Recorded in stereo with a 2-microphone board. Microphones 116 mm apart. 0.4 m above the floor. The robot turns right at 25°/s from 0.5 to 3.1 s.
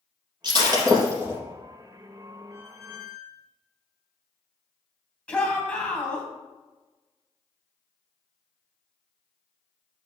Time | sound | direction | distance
0.4 | breaking glass | 40° right (ahead or behind) | 3 m
2.5 | a squeak | 5° right (ahead or behind) | 2.5 m
5.3 | a shout | 10° left (ahead or behind) | 2.5 m